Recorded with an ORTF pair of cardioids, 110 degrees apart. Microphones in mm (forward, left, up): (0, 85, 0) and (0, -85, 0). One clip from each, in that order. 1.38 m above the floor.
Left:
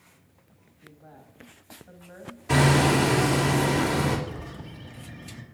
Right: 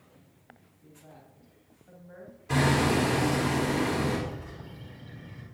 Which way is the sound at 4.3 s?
50° left.